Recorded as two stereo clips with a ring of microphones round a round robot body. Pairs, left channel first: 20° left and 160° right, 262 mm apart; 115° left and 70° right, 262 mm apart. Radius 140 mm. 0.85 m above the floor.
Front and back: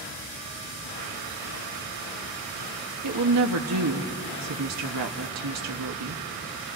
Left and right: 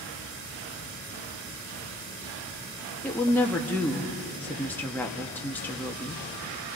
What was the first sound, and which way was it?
A woman speaking, 165° right.